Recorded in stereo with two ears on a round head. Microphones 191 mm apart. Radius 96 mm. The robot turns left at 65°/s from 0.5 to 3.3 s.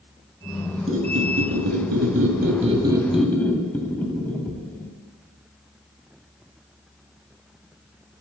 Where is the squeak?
30° right, 1.4 m; by 4.9 s 170° left, 1.4 m.